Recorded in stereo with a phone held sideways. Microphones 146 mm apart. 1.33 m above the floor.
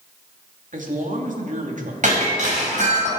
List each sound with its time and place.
0.7 s a man speaking: 60° right (ahead or behind), 2.5 m
2.0 s breaking glass: 55° right (ahead or behind), 5 m